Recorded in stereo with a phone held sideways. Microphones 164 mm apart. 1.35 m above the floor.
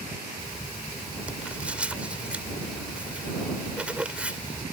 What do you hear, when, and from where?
0.4 s writing: 5° right (ahead or behind)